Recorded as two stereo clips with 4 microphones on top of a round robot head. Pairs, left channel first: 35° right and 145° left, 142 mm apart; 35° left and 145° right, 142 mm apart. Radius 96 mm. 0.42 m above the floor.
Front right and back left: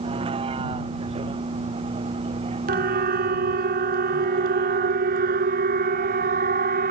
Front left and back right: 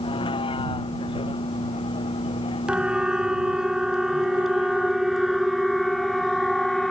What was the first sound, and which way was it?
A vehicle, 90° left.